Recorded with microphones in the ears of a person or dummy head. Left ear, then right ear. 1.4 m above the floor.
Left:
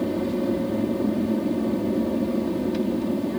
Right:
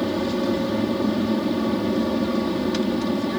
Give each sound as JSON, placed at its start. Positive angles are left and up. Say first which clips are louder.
{"t": 0.0, "sound": "an aircraft", "louder": "right 2 dB", "side_deg": -45}